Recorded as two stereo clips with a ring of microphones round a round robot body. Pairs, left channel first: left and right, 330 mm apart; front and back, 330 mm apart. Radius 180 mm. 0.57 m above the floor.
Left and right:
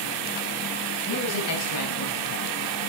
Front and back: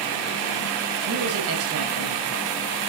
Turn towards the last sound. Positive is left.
turn(degrees=135)